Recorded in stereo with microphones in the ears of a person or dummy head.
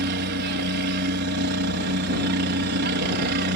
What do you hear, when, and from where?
0.0 s a helicopter: 55° right (ahead or behind)